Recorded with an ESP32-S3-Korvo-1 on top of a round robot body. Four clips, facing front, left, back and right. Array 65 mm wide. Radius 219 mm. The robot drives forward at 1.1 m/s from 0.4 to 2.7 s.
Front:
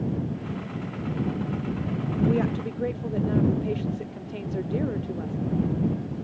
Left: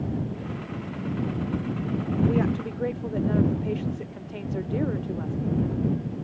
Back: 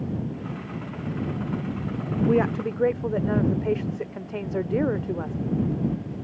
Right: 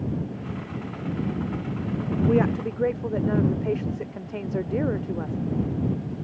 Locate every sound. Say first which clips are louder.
2.3 s a woman speaking: right 3 dB, back 3 dB; 145° right; by 5.4 s 155° right